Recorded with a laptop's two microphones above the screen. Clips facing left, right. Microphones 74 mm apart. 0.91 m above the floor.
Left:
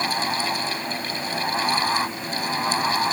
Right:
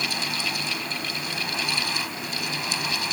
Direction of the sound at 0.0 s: 40° left (ahead or behind).